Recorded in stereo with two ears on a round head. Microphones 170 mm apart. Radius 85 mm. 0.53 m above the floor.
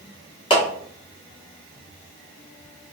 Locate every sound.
0.5 s a clap: 30° left (ahead or behind), 1.0 m